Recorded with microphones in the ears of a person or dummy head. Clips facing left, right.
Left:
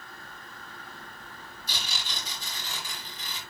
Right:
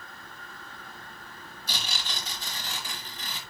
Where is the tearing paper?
45° right (ahead or behind), 7.5 m.